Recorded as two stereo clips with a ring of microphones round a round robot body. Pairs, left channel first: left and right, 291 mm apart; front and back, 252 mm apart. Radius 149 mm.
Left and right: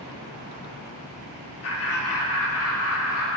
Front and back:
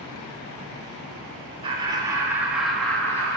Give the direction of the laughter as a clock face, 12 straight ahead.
8 o'clock.